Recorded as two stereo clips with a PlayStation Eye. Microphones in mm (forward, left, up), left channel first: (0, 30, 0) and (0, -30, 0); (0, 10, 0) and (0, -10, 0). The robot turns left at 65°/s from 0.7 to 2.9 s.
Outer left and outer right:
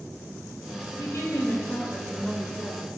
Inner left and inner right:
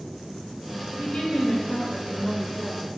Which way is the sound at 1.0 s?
95° left.